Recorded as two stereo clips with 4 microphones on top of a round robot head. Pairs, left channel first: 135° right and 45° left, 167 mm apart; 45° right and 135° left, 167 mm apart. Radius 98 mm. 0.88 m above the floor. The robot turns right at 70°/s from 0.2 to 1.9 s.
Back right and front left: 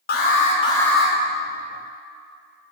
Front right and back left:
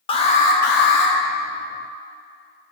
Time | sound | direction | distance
0.1 | an alarm | 100° right | 1.8 m